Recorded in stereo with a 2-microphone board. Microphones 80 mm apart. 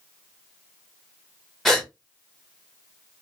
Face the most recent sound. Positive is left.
turn(degrees=0)  # may be behind; listen again after turning